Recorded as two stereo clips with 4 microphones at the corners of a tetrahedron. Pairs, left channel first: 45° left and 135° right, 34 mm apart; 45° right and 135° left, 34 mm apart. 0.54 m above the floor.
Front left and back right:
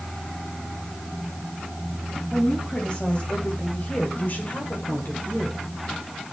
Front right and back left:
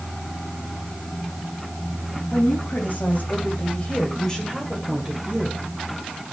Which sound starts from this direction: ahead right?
A woman speaking, at 2.3 s.